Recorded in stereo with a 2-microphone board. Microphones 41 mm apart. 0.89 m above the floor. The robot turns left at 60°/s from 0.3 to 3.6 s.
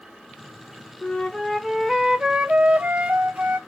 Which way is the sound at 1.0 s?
35° left.